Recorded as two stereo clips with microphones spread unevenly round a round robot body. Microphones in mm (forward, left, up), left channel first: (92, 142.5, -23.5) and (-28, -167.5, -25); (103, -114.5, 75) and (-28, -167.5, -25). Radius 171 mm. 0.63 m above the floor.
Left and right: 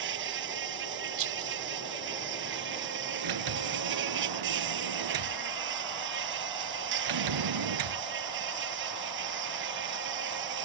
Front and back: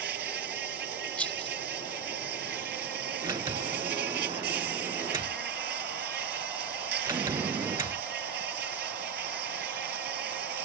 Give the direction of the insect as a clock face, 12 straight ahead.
6 o'clock.